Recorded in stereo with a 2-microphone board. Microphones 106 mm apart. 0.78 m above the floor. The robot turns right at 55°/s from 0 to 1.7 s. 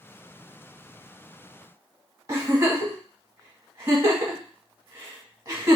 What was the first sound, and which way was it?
A giggle, 35° right (ahead or behind).